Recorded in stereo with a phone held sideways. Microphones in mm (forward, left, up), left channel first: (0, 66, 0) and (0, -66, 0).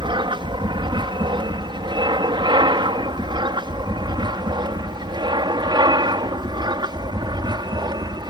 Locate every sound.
0.0 s an aircraft: 35° right (ahead or behind)